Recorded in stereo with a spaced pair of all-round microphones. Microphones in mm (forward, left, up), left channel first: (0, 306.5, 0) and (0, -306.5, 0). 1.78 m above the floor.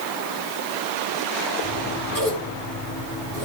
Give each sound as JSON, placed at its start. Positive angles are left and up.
{"t": 1.6, "sound": "scissors", "side_deg": 35, "distance_m": 10.0}